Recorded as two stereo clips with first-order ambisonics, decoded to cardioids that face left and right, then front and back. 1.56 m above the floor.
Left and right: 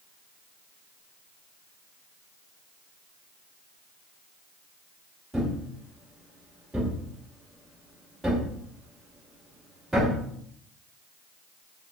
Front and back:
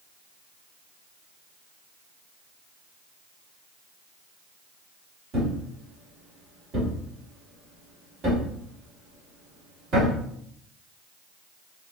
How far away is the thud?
About 1.2 m.